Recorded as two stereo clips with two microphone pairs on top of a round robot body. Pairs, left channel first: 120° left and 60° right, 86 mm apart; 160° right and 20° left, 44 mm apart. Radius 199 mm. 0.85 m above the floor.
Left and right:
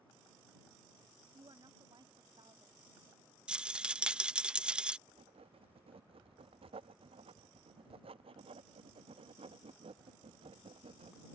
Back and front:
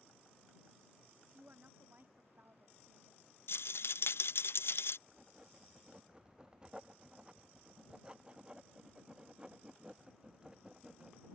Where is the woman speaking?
25° right.